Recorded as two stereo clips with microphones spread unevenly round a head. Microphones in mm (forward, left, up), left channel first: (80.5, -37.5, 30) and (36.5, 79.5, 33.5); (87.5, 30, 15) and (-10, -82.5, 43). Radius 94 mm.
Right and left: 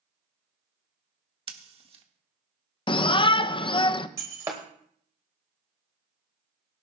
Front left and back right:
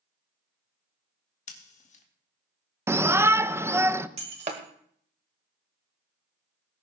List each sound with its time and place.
1.5 s scissors: 75° left, 1.6 m
2.9 s a shout: 50° right, 0.5 m
4.2 s breaking glass: straight behind, 1.0 m